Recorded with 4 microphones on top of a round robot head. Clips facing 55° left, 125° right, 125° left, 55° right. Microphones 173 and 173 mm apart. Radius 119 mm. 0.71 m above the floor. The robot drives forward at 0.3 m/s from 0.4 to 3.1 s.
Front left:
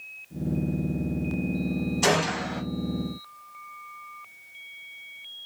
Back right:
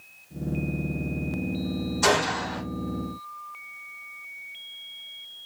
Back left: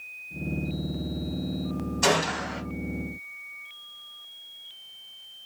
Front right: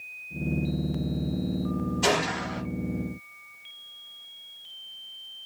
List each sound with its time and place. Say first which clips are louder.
2.0 s a gunshot: back right 2 dB, back left 3 dB; 115° left, 1.6 m; by 2.6 s 120° left, 1.7 m